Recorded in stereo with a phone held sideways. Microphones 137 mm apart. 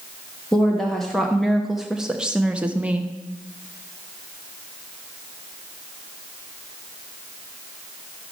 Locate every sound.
0.5 s a woman speaking: 5° left (ahead or behind), 1.3 m; by 3.1 s 10° right (ahead or behind), 0.9 m